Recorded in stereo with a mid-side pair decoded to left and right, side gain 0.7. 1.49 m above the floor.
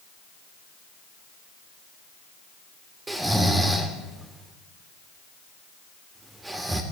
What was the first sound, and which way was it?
Snoring, 15° right.